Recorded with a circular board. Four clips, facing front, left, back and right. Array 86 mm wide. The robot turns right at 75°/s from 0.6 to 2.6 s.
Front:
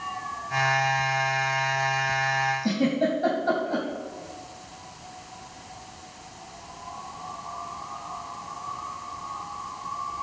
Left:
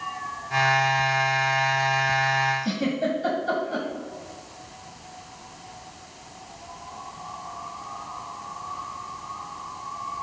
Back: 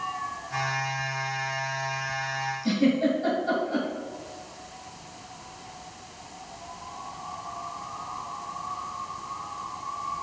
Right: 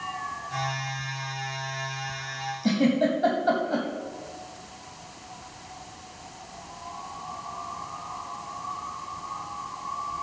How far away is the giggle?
About 3 m.